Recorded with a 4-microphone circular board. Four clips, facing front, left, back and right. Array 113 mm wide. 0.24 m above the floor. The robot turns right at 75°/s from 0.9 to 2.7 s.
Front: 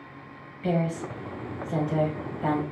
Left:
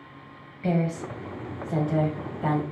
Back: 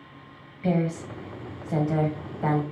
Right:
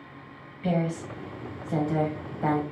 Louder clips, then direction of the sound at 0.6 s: Left 1 dB, back 1 dB; 110° left.